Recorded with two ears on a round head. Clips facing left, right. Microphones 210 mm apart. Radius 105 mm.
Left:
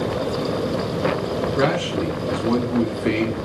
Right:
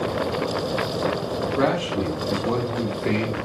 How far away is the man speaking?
About 1.4 m.